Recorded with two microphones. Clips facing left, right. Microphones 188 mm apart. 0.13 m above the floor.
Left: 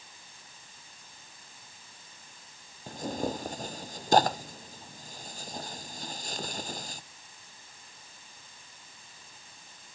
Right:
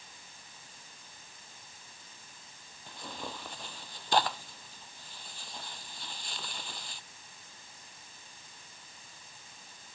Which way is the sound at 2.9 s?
45° left (ahead or behind).